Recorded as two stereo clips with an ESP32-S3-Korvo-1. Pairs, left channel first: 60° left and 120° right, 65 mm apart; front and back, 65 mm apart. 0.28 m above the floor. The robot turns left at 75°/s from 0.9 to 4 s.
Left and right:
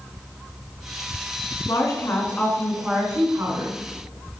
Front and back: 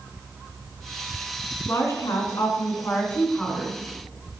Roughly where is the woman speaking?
Ahead left.